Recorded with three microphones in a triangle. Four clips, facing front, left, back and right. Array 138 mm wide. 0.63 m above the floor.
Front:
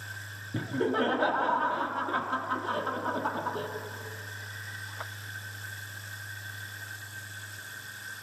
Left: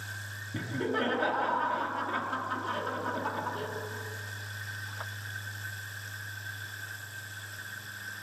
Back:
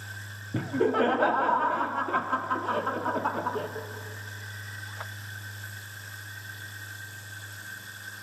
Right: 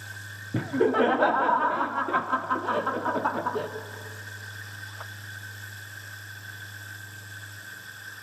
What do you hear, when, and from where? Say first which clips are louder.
0.5 s laughter: right 9 dB, back 4 dB; 110° right, 0.8 m